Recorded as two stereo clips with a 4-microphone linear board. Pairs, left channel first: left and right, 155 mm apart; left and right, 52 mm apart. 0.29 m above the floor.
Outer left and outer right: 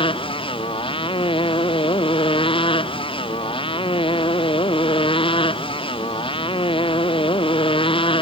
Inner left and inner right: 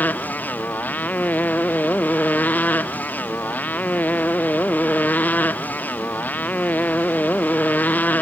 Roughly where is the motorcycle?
Left.